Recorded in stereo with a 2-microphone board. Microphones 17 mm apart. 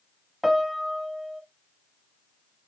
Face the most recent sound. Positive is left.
turn(degrees=-10)  # may be behind; listen again after turning